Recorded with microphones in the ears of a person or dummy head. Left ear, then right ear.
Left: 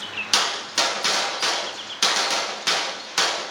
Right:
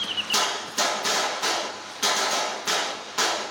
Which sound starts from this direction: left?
A gunshot, at 0.3 s.